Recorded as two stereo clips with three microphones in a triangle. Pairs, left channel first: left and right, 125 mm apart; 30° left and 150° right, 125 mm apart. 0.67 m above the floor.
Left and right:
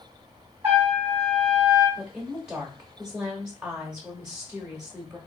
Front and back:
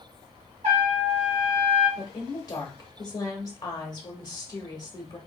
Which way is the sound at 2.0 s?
10° right.